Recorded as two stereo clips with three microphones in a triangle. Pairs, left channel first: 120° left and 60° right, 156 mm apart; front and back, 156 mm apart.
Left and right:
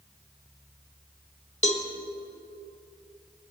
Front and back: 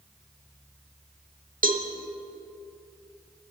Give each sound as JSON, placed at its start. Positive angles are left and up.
{"t": 1.6, "sound": "a cowbell", "azimuth_deg": 160, "distance_m": 1.2}